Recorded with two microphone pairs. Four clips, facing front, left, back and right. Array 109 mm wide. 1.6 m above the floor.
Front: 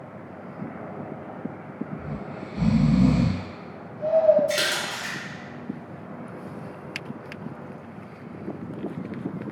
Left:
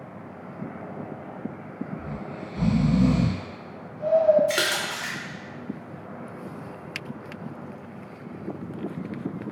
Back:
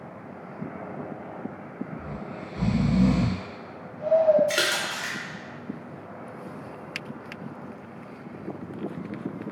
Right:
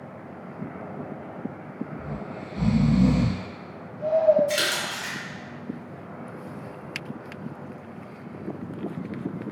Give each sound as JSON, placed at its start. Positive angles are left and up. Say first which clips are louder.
{"t": 2.0, "sound": "snoring", "louder": "even, front 2 dB", "azimuth_deg": 5, "distance_m": 1.7}
{"t": 4.5, "sound": "a splash", "louder": "left 1 dB, even", "azimuth_deg": 115, "distance_m": 0.6}